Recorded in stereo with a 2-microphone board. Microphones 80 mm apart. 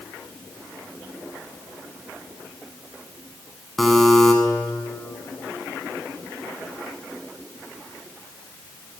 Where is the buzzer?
Centre (ahead or behind), 0.9 m.